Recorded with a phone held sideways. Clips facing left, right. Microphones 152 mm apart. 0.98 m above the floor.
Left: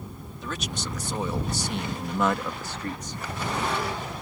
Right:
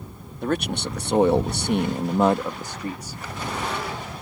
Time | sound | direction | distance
0.4 | a man speaking | 55° right (ahead or behind) | ?